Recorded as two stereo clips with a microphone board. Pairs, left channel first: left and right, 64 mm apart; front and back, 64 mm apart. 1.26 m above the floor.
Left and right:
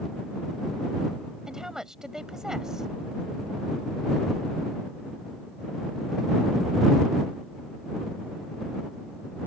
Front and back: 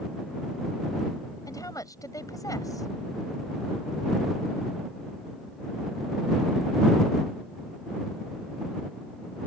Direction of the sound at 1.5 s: 10° right.